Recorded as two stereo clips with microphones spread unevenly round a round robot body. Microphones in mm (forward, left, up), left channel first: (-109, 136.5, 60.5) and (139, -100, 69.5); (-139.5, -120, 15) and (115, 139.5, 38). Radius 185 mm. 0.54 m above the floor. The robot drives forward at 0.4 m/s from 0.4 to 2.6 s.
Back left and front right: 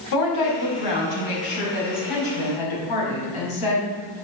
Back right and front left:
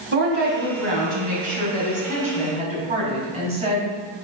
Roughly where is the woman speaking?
Left.